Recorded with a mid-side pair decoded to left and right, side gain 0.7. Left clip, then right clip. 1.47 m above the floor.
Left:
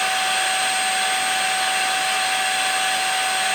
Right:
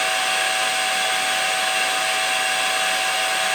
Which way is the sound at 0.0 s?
5° right.